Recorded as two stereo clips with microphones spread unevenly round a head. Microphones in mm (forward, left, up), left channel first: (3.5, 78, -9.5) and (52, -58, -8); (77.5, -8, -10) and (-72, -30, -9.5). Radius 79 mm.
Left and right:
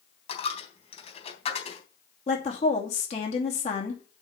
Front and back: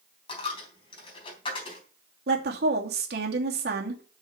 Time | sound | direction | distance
0.3 | a dropped coin | 65° left | 3.5 m
2.3 | a woman speaking | 160° left | 2.5 m